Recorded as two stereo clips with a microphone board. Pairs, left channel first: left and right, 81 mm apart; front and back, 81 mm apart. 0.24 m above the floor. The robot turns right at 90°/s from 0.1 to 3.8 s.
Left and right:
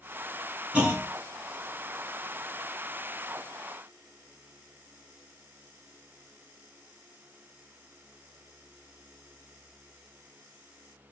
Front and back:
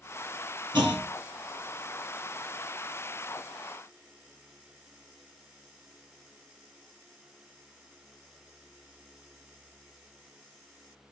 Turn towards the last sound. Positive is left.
turn(degrees=115)